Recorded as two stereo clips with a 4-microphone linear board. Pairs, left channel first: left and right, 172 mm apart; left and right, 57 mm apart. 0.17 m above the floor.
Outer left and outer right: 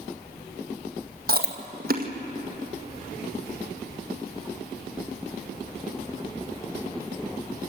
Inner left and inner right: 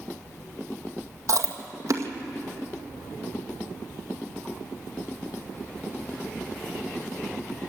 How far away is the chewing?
About 1.9 m.